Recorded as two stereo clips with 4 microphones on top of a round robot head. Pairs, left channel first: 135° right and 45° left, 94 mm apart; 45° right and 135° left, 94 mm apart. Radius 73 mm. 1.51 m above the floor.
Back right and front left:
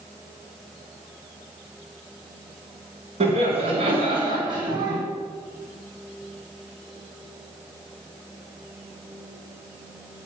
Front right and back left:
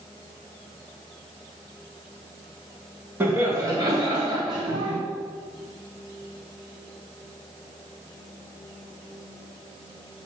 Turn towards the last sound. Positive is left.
turn(degrees=100)